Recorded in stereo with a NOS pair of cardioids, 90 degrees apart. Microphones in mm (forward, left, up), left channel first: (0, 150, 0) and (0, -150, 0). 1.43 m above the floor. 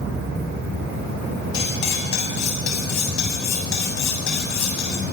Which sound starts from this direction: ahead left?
Cutlery clinking, at 1.5 s.